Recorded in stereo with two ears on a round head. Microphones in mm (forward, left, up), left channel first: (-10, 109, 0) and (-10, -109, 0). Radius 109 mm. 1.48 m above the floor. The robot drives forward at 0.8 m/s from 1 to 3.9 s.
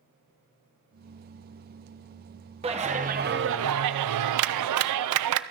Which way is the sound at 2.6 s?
25° right (ahead or behind).